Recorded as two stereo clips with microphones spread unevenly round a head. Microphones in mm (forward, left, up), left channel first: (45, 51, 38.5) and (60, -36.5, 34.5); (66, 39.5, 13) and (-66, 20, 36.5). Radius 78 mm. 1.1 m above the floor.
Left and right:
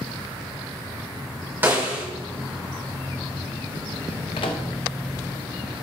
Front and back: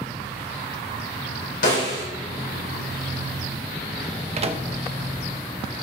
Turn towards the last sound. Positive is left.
turn(degrees=145)